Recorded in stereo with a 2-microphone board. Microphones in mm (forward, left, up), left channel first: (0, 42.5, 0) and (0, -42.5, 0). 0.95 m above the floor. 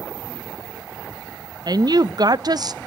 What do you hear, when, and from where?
1.7 s a woman speaking: 55° right (ahead or behind), 0.6 m